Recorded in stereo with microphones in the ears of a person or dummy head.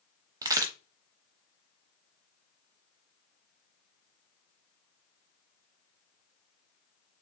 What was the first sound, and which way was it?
A crack, 20° right (ahead or behind).